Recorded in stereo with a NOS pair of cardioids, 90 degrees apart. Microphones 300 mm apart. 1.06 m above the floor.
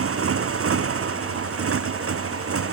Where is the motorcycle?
45° right.